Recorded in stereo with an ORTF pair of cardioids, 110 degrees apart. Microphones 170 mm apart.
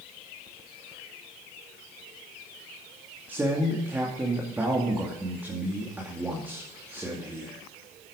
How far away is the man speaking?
About 2.5 m.